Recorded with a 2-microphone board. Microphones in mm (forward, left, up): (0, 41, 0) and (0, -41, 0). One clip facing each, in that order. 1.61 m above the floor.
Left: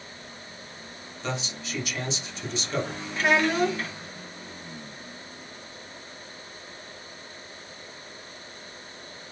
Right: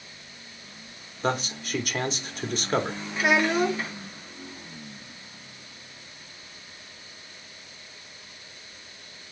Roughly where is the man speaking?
Right.